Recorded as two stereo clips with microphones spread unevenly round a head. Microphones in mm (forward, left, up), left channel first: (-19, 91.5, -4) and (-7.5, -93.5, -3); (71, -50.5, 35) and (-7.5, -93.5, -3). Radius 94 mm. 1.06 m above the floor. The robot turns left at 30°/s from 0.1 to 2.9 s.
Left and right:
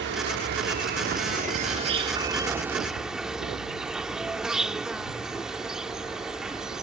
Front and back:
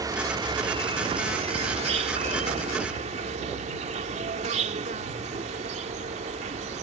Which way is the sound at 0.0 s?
90° right.